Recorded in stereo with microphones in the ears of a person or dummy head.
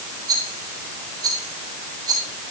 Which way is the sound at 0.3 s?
15° right (ahead or behind).